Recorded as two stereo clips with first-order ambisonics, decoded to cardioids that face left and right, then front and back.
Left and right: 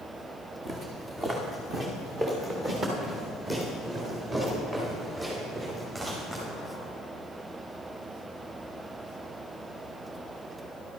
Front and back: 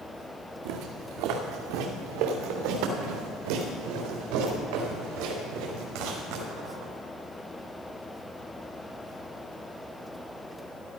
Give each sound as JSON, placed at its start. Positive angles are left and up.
{"t": 0.7, "sound": "footsteps", "azimuth_deg": -160, "distance_m": 2.0}